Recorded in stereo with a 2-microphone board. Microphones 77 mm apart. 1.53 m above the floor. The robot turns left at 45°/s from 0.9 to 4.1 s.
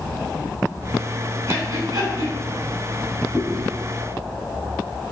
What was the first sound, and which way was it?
Breathing, 40° right (ahead or behind).